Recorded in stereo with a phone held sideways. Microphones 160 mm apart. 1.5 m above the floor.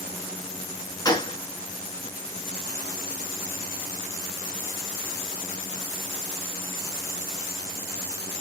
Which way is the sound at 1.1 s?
25° left (ahead or behind).